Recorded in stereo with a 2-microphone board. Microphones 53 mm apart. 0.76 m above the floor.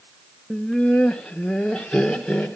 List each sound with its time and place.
0.5 s laughter: 15° left (ahead or behind), 0.6 m